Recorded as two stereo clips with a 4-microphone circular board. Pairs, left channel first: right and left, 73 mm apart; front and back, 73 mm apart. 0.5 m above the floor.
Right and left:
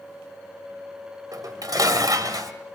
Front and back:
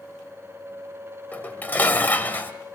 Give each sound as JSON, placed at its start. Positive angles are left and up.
{"t": 1.3, "sound": "dishes clattering", "azimuth_deg": 65, "distance_m": 1.7}